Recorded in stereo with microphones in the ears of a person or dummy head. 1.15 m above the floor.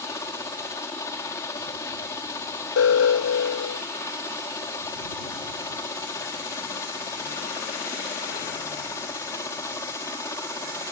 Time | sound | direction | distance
0.0 | a helicopter | 20° left (ahead or behind) | ?
2.8 | an alarm | 80° left | ?